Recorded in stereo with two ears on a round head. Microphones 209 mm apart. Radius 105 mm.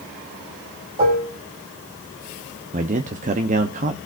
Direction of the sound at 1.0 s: 30° right (ahead or behind).